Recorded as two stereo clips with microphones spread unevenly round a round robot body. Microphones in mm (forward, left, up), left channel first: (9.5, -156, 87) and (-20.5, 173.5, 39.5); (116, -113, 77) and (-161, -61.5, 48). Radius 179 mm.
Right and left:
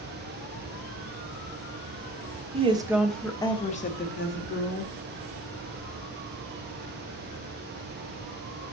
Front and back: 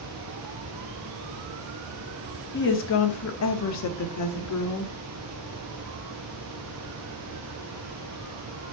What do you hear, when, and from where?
2.5 s a woman speaking: 40° left, 1.2 m; by 4.9 s 35° right, 1.8 m